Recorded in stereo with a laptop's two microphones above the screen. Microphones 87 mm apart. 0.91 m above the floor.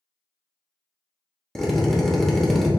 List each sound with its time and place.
1.6 s a drill: 5° left (ahead or behind), 0.9 m